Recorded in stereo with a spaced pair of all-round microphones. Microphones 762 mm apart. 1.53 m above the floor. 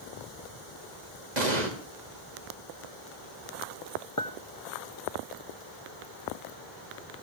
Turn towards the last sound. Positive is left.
turn(degrees=25)  # may be behind; listen again after turning